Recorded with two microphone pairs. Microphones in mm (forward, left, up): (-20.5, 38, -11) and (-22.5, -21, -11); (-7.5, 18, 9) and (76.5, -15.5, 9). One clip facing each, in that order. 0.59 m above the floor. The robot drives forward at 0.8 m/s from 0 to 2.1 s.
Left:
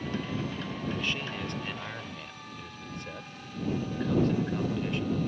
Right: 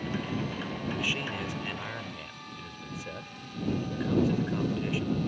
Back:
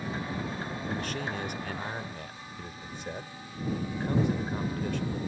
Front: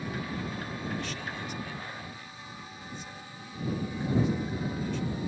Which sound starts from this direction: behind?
A man speaking, at 0.9 s.